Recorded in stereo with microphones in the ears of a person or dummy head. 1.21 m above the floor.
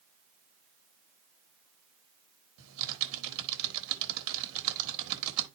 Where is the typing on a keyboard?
70° right (ahead or behind), 1.2 m.